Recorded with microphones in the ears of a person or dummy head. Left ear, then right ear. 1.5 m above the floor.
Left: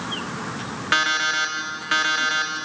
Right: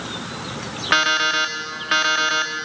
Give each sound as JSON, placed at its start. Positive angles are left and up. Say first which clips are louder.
{"t": 0.9, "sound": "an alarm clock", "louder": "right 3 dB", "side_deg": -15, "distance_m": 1.7}